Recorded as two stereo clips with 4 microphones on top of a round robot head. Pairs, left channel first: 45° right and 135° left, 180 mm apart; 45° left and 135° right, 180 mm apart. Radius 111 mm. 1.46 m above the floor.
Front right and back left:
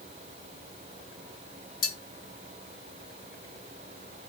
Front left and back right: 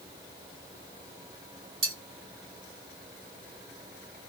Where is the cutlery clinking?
85° right, 1.1 m.